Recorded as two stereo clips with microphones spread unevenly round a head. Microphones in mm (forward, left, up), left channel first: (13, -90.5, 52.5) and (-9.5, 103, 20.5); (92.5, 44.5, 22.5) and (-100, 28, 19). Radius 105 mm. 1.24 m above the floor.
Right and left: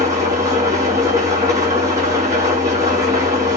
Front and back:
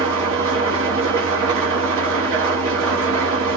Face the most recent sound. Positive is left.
turn(degrees=175)